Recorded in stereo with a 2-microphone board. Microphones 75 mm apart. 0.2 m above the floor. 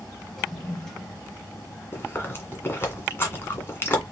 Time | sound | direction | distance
0.4 | a toilet flushing | 5° left (ahead or behind) | 1.5 m
1.9 | chewing | 30° left (ahead or behind) | 1.8 m